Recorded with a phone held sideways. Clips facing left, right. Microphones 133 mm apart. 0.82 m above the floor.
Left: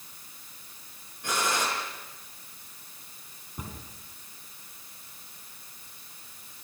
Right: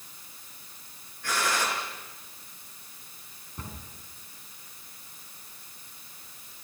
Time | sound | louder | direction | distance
1.2 | a gunshot | even | 25° left (ahead or behind) | 6.5 m
3.6 | a cupboard door | left 1 dB | 15° left (ahead or behind) | 3.5 m